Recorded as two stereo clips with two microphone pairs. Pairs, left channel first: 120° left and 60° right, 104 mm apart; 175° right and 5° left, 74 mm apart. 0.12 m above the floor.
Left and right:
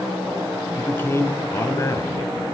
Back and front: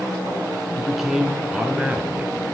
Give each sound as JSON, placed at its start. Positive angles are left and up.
{"t": 0.8, "sound": "a man speaking", "azimuth_deg": 95, "distance_m": 1.1}